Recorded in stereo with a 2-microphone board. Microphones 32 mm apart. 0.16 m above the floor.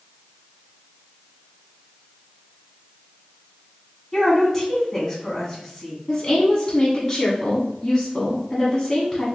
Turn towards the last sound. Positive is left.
turn(degrees=20)  # may be behind; listen again after turning